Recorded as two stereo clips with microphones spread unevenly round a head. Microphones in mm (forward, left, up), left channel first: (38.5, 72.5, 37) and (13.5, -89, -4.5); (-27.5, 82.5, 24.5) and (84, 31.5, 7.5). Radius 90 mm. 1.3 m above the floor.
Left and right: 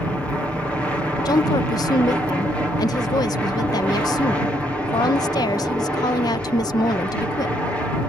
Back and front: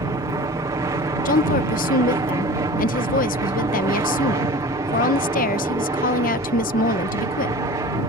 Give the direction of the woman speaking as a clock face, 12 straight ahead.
7 o'clock.